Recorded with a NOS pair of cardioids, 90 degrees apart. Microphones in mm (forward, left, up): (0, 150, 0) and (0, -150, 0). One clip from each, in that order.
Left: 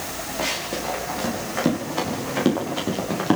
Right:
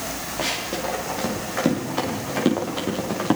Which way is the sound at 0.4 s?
5° right.